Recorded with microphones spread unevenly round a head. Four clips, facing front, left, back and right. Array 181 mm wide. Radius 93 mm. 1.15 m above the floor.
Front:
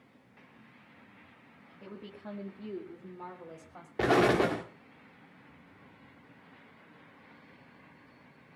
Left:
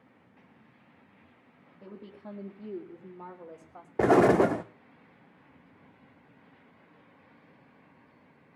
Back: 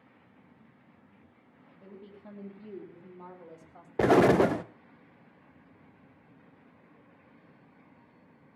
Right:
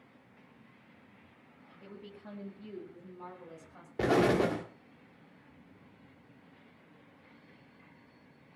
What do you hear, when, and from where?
1.8 s a woman speaking: 65° left, 2.5 m; by 3.9 s 80° left, 3 m
4.0 s an explosion: 170° right, 0.8 m